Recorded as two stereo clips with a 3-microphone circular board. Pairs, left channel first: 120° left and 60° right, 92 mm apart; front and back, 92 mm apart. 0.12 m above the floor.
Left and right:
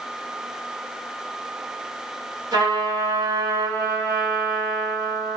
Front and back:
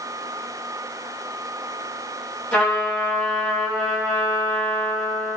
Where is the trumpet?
65° right, 1.4 m.